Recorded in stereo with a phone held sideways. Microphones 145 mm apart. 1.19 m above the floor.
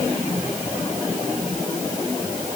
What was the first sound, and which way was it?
Only background noise.